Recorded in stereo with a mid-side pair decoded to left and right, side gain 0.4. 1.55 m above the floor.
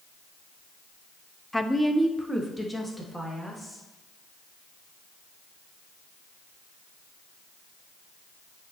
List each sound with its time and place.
1.5 s a woman speaking: 10° left, 0.6 m